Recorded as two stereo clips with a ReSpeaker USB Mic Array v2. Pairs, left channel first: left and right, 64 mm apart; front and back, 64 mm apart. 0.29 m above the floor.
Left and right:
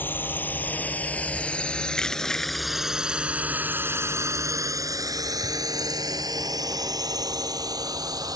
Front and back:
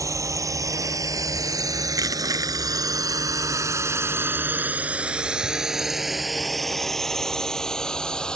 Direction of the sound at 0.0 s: 150° left.